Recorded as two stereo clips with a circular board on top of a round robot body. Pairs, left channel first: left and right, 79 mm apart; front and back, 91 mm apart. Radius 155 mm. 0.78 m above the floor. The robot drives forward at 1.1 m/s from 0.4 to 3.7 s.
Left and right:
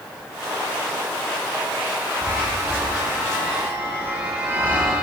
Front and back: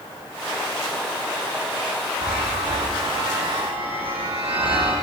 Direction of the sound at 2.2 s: 150° right.